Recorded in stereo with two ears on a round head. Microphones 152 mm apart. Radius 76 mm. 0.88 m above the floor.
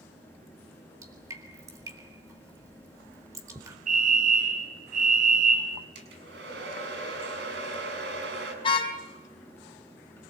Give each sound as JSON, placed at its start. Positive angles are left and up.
{"t": 1.0, "sound": "dripping", "side_deg": -20, "distance_m": 4.0}
{"t": 3.9, "sound": "a fire alarm", "side_deg": -50, "distance_m": 6.0}
{"t": 6.0, "sound": "a hair dryer", "side_deg": -75, "distance_m": 6.5}
{"t": 8.6, "sound": "a car horn", "side_deg": 30, "distance_m": 4.5}